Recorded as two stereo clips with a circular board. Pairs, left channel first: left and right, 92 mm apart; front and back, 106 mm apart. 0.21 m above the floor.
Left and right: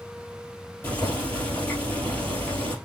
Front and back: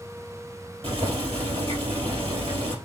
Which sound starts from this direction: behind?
Boiling, at 0.8 s.